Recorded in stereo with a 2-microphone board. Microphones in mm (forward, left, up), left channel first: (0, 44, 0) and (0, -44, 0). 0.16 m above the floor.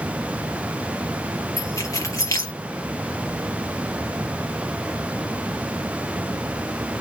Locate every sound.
1.6 s keys jangling: 40° left (ahead or behind), 2.5 m